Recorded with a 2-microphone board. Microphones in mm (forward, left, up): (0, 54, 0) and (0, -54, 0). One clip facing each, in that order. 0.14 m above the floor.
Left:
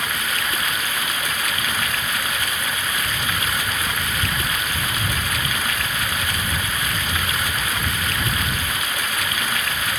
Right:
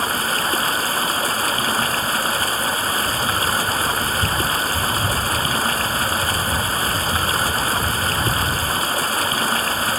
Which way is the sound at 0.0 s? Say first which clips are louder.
Right 4 dB; 40° right (ahead or behind).